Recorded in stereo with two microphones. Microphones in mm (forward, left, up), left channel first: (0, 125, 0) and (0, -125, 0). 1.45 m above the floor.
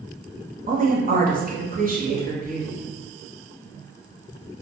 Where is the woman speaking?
35° right (ahead or behind), 0.8 m.